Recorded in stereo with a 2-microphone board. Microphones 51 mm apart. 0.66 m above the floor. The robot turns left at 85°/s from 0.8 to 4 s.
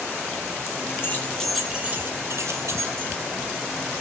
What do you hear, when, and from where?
1.0 s keys jangling: 45° left (ahead or behind), 3 m; by 3.1 s 45° right (ahead or behind), 3 m